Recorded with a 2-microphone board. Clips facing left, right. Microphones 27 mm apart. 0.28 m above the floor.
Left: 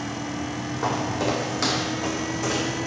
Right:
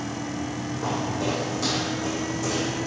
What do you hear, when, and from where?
0.8 s footsteps: 70° left (ahead or behind), 0.9 m; by 2.8 s 45° left (ahead or behind), 1.3 m